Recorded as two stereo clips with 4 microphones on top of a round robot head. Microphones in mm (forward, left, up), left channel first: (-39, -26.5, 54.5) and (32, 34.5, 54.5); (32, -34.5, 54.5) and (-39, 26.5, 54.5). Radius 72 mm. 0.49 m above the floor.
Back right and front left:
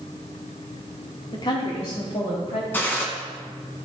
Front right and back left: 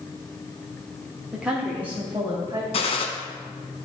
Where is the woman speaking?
140° right, 1.1 m; by 2.6 s 160° right, 3 m.